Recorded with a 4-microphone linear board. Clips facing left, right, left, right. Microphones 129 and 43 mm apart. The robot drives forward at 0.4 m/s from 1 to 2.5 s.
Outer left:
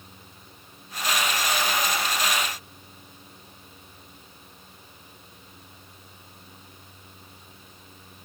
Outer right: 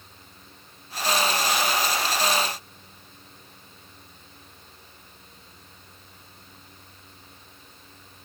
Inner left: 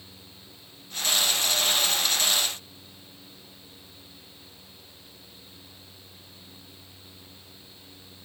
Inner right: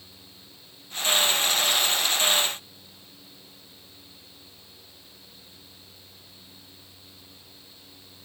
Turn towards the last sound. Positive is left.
No sound to turn to.